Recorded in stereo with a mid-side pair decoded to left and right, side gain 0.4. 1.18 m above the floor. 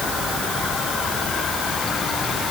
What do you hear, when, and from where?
Only background noise.